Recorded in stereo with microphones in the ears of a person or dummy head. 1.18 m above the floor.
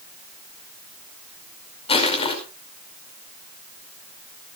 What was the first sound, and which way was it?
Crushing, 30° left (ahead or behind).